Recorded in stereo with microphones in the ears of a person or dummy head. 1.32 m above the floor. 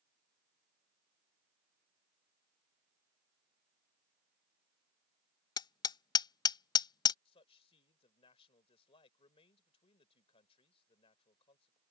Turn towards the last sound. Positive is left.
turn(degrees=35)  # may be behind; listen again after turning